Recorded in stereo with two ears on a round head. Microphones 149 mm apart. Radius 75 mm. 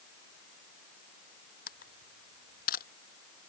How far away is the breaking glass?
No breaking glass in this recording.